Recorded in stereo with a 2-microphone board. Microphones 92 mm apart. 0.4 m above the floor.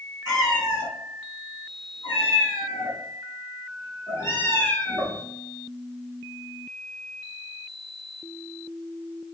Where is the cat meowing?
45° left (ahead or behind), 2.0 m; by 5.2 s 15° left (ahead or behind), 1.5 m.